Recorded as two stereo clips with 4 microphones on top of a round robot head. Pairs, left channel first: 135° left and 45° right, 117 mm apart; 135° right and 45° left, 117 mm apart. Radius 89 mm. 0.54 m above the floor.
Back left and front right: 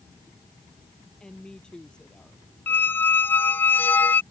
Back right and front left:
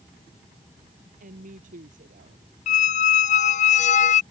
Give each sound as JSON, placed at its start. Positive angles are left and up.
{"t": 1.2, "sound": "a woman speaking", "azimuth_deg": 50}
{"t": 2.7, "sound": "a squeak", "azimuth_deg": -150}